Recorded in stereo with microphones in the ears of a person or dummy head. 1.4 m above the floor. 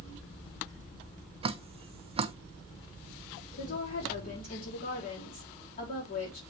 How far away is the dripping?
About 0.5 m.